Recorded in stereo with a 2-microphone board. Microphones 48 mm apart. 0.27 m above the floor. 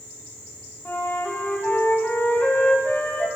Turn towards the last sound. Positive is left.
turn(degrees=50)  # may be behind; listen again after turning